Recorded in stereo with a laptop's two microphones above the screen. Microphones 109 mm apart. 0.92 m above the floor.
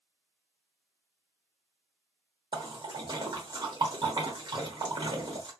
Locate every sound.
2.5 s a splash: 45° right (ahead or behind), 1.1 m